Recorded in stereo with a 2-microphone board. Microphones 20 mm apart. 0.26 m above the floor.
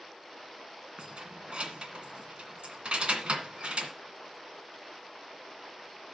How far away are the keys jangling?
About 1.8 m.